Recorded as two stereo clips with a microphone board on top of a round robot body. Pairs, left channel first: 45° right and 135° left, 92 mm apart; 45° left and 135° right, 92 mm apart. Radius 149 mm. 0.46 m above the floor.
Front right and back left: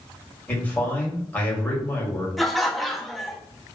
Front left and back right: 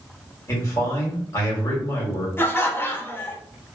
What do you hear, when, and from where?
0.5 s a man speaking: 15° left, 1.5 m
2.4 s laughter: 40° left, 0.7 m